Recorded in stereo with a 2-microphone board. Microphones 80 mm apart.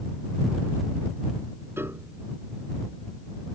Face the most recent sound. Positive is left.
turn(degrees=-30)  # may be behind; listen again after turning